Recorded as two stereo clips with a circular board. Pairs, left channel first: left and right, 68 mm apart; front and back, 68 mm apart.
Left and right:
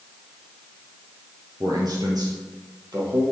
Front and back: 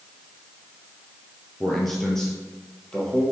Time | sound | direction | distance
1.6 | a man speaking | 85° right | 3 m